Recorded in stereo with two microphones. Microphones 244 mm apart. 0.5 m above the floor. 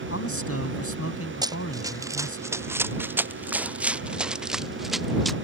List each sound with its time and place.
0.1 s a man speaking: 60° left (ahead or behind)
1.4 s running footsteps: 15° right (ahead or behind); by 5.3 s centre (ahead or behind)